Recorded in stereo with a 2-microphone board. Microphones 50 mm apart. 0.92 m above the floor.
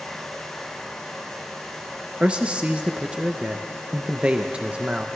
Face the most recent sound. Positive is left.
turn(degrees=-20)  # may be behind; listen again after turning